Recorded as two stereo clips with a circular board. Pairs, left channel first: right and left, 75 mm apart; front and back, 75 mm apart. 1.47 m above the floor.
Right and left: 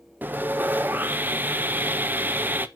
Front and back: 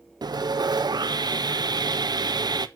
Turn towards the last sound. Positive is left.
turn(degrees=155)